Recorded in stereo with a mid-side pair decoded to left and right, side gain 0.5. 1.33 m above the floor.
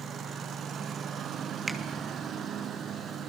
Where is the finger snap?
15° right, 2.5 m.